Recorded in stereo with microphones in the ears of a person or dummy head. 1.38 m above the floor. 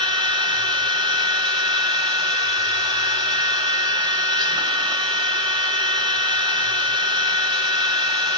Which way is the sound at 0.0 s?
20° right (ahead or behind).